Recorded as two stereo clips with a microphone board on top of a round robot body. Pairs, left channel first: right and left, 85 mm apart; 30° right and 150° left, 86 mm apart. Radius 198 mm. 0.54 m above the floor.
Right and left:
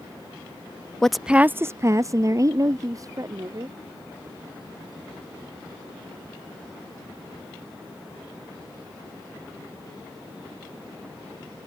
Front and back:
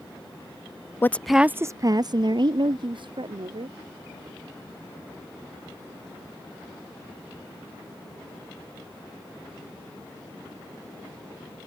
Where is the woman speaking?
15° right; by 3.8 s 140° left.